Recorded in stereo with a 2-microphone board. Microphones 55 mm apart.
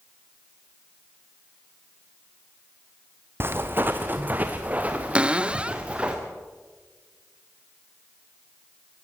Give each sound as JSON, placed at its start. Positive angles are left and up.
{"t": 3.4, "sound": "footsteps", "side_deg": -45, "distance_m": 1.4}
{"t": 5.2, "sound": "a cupboard door", "side_deg": -20, "distance_m": 0.6}